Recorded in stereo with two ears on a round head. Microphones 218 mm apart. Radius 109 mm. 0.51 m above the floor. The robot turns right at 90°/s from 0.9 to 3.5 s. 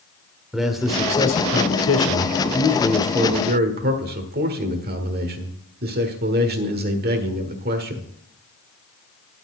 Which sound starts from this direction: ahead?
A man speaking, at 0.5 s.